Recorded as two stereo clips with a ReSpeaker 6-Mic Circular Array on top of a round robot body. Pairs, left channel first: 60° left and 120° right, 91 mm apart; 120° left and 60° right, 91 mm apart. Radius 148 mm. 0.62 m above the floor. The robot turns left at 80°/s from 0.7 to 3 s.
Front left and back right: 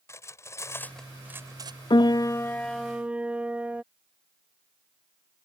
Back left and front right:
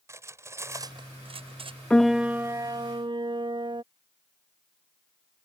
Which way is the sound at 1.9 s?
45° left.